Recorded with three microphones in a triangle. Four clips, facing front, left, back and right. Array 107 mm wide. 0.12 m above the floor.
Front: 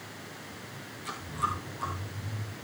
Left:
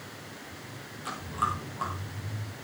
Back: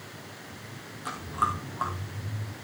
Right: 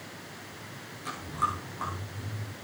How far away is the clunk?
I don't hear a clunk.